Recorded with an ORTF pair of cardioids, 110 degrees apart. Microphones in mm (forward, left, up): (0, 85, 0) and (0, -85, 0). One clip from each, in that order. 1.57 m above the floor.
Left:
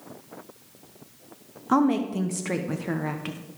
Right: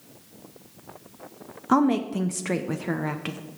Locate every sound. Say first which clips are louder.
1.7 s a woman speaking: right 1 dB; 15° right, 0.8 m